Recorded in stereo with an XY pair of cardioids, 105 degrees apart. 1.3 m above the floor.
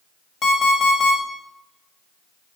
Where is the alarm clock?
55° left, 1.3 m.